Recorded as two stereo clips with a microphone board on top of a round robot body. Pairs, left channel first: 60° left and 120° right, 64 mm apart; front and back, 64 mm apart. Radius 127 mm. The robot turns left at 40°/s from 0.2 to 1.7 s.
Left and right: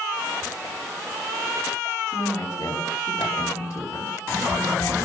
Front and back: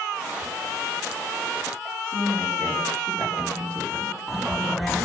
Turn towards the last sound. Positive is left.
turn(degrees=110)